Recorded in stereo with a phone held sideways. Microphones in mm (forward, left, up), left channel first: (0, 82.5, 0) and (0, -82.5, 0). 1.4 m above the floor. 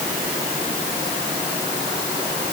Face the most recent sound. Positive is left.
No sound to turn to.